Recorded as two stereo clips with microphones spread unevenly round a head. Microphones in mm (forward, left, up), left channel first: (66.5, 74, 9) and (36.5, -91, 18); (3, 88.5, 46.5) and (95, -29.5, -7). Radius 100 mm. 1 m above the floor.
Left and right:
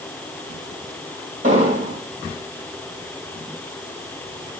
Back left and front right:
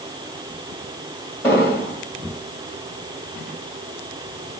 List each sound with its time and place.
1.4 s an explosion: 150° right, 3.5 m